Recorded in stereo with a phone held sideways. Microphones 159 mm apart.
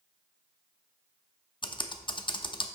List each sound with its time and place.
1.6 s typing on a keyboard: 30° left (ahead or behind), 0.7 m